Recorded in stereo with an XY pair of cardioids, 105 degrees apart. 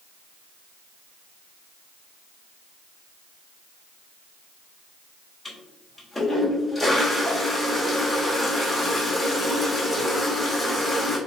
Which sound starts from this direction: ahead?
A toilet flushing, at 5.5 s.